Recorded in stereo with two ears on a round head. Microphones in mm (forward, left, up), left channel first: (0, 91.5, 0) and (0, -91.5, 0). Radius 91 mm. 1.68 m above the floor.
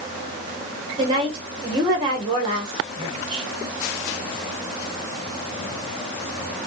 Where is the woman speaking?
25° right (ahead or behind), 1.9 m.